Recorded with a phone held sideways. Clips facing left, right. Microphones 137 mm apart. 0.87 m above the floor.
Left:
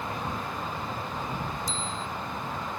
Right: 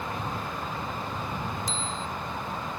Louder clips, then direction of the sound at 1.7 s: Right 1 dB; 85° right.